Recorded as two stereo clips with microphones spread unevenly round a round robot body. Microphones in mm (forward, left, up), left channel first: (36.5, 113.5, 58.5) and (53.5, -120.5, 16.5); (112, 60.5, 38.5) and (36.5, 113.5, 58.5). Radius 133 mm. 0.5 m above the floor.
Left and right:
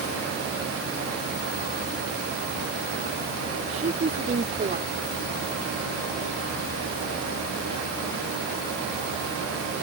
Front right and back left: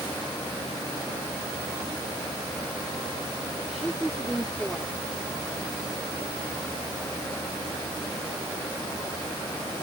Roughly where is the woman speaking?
Behind right.